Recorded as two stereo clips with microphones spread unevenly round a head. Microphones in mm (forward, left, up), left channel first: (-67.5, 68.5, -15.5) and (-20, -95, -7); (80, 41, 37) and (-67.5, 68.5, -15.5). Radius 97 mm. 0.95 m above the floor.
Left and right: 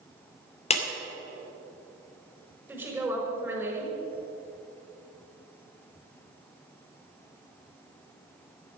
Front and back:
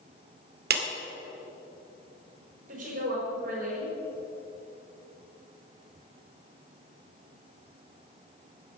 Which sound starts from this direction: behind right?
A woman speaking, at 2.7 s.